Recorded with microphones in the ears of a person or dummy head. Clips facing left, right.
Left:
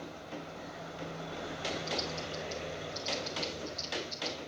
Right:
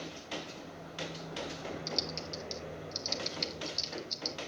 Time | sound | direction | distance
1.9 | typing on a keyboard | 30° right (ahead or behind) | 1.5 m